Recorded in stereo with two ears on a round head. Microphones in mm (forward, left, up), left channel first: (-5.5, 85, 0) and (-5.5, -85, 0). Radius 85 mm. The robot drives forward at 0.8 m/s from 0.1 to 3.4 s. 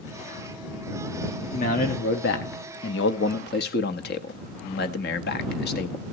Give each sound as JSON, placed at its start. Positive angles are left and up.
{"t": 1.5, "sound": "a man speaking", "side_deg": 40, "distance_m": 1.4}